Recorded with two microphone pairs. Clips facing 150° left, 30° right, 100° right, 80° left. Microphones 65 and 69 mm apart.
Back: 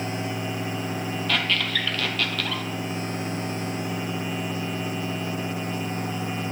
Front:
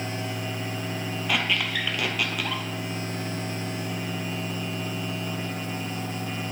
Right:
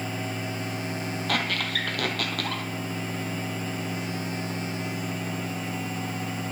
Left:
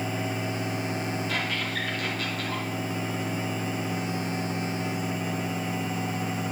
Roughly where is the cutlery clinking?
No cutlery clinking in this recording.